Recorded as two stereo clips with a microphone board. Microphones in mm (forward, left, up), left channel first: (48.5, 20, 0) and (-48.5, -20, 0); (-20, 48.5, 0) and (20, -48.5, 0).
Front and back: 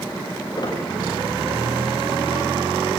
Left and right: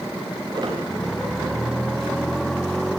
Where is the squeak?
20° right, 5.5 m.